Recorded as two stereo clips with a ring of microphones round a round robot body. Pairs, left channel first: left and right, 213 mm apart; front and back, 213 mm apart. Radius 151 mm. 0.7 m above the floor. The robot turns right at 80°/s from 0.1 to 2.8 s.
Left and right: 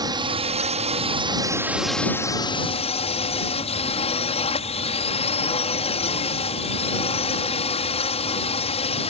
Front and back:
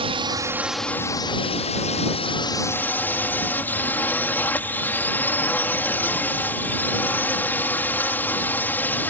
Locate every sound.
0.0 s a drone: 145° right; by 9.1 s 70° left